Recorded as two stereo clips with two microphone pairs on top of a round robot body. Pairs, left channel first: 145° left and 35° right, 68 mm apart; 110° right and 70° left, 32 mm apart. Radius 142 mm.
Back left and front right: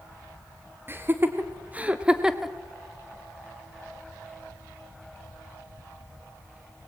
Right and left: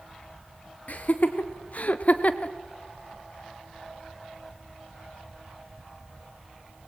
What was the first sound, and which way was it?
Laughter, 90° right.